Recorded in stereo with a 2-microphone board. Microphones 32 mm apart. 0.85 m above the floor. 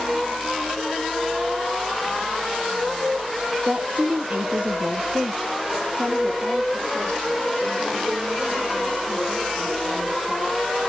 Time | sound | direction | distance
3.6 | a woman speaking | 55° right (ahead or behind) | 1.0 m